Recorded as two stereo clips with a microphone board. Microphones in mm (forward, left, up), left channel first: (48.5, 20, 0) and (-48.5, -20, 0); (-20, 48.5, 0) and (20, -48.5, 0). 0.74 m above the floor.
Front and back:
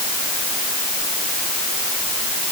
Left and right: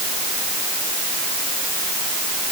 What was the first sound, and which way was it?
Only background noise.